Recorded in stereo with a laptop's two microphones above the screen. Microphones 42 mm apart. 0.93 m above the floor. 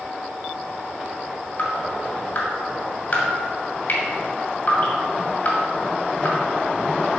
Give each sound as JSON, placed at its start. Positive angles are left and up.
{"t": 1.6, "sound": "dripping", "side_deg": 40, "distance_m": 1.9}